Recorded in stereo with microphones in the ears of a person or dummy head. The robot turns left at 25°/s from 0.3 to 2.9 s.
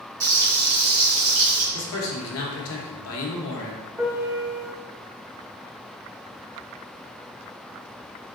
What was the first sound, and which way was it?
Frying, 20° right.